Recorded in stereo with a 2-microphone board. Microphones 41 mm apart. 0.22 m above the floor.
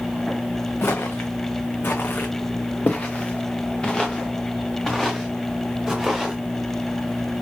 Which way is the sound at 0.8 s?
75° left (ahead or behind).